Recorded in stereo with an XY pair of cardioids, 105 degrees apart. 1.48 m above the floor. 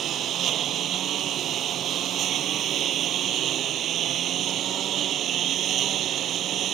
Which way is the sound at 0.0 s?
65° right.